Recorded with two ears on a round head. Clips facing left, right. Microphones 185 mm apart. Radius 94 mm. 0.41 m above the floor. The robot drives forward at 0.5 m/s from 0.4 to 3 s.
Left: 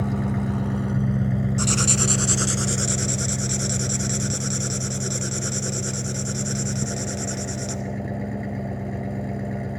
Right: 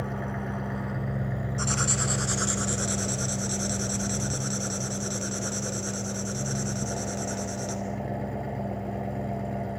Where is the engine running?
50° left (ahead or behind), 1.3 m; by 9.8 s 25° left (ahead or behind), 2.5 m.